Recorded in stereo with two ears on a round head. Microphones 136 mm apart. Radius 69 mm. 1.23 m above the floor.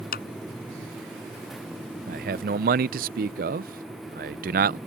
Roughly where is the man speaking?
Right.